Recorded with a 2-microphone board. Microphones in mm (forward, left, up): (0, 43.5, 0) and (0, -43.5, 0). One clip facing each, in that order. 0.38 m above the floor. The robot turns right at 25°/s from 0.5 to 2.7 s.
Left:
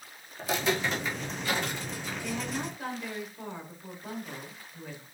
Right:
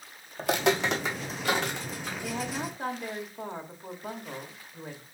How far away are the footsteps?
About 1.0 m.